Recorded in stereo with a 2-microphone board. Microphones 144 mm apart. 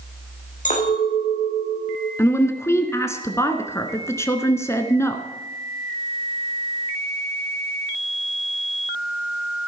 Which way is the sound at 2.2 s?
20° left (ahead or behind).